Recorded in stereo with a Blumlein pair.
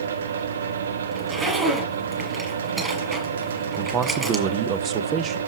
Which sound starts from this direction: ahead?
A zipper, at 1.1 s.